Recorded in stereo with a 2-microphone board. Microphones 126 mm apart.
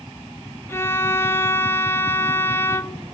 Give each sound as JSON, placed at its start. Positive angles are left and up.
{"t": 0.7, "sound": "a violin", "side_deg": 20, "distance_m": 0.6}